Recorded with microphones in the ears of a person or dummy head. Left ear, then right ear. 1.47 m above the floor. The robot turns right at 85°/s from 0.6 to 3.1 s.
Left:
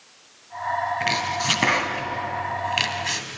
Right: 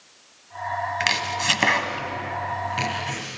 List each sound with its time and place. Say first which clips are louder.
1.0 s chopping: right 1 dB; 60° right (ahead or behind), 2.5 m; by 3.2 s 60° left (ahead or behind), 2.5 m